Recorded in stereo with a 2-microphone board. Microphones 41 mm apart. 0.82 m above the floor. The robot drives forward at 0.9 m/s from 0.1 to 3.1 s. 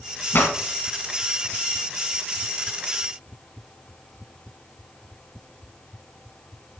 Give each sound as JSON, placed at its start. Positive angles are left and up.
{"t": 0.3, "sound": "a pop", "side_deg": 60, "distance_m": 1.6}